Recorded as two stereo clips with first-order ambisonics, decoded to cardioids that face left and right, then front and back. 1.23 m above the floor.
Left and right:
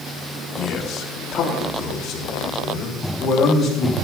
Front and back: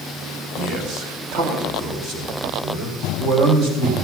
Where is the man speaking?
130° left, 2.0 m; by 4.0 s 160° left, 5.5 m.